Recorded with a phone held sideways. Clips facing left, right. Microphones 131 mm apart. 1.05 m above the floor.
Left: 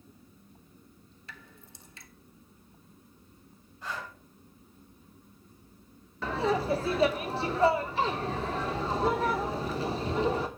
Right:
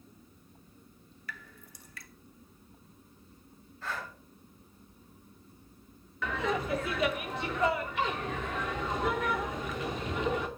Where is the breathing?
15° left (ahead or behind), 4.5 m.